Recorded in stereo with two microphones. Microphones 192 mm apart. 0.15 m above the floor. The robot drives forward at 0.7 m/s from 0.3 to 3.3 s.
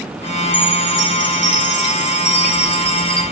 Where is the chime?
75° left (ahead or behind), 2.5 m; by 3.2 s 55° left (ahead or behind), 3.5 m.